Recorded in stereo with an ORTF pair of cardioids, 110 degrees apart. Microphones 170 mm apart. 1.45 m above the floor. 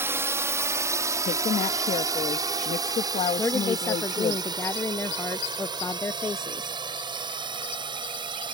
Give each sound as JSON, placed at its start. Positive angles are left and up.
{"t": 0.0, "sound": "a drone", "azimuth_deg": -15}
{"t": 1.2, "sound": "a woman speaking", "azimuth_deg": 45}
{"t": 3.4, "sound": "a woman speaking", "azimuth_deg": 15}